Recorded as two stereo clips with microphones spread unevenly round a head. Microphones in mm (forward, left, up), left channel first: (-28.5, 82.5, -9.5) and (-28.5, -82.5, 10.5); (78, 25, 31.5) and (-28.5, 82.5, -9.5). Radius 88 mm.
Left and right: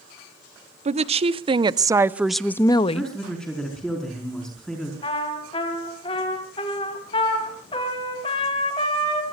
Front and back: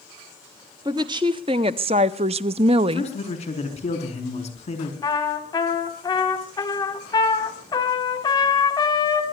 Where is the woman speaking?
135° right, 1.2 m; by 3.1 s 100° left, 0.6 m.